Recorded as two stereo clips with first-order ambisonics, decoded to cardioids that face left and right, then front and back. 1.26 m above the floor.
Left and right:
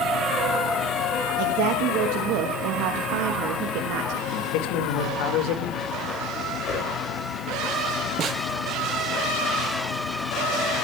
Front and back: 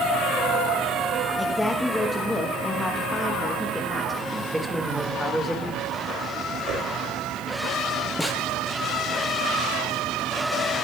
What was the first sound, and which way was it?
A woman speaking, 80° right.